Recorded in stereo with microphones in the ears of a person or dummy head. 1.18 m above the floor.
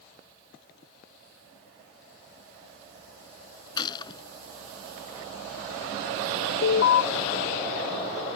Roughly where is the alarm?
Left.